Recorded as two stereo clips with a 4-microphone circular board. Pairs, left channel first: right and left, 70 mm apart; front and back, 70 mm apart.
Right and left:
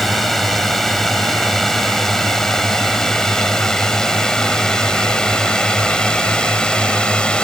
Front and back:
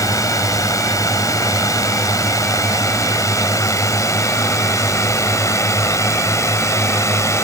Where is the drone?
5° right; by 7.4 s 20° right.